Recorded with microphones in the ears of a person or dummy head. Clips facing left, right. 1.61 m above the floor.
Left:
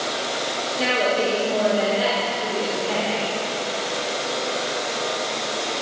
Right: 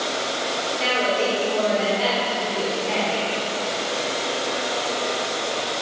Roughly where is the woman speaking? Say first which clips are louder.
Left 2 dB; centre.